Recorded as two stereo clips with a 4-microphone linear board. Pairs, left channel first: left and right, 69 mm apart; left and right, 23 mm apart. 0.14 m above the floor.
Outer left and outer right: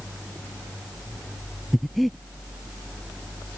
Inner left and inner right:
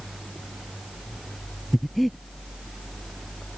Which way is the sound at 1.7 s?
Centre (ahead or behind).